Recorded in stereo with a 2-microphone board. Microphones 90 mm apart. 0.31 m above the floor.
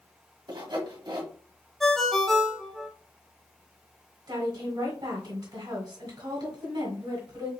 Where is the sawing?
55° right (ahead or behind), 1.4 m.